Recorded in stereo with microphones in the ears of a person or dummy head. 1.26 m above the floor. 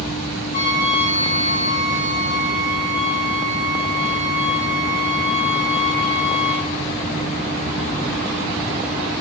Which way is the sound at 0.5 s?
45° left (ahead or behind).